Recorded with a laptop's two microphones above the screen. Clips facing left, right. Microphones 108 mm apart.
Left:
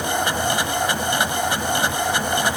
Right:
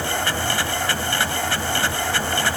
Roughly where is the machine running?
Centre.